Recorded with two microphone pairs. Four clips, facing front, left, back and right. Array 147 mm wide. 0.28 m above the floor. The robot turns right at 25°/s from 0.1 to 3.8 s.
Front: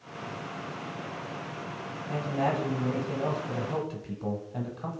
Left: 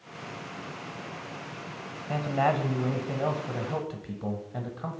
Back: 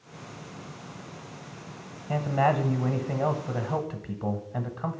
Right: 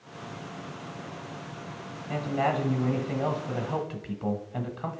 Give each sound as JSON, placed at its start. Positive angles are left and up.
{"t": 2.1, "sound": "a man speaking", "azimuth_deg": 165, "distance_m": 1.1}